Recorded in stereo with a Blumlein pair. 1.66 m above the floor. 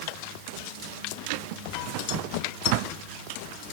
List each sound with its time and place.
Only background noise.